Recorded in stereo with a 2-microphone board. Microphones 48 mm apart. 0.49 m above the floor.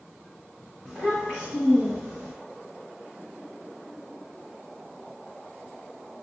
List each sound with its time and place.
0.8 s a child speaking: 10° right (ahead or behind), 2 m